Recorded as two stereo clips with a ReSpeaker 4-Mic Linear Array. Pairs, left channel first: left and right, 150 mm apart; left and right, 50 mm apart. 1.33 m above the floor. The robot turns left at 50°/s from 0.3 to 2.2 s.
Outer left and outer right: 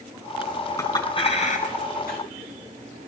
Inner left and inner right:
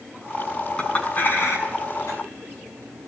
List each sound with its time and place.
0.8 s a clink: 20° left (ahead or behind), 7 m; by 2.2 s 85° left, 7 m